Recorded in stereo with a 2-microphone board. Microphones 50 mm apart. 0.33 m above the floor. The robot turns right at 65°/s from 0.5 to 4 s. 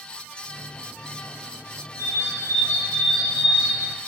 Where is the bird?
95° left, 4.5 m; by 3.9 s 135° right, 4.5 m.